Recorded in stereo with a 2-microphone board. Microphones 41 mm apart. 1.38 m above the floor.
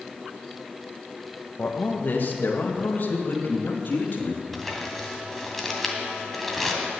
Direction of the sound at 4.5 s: Centre (ahead or behind).